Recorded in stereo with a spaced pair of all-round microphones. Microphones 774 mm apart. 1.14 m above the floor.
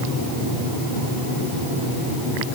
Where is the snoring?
I don't hear snoring.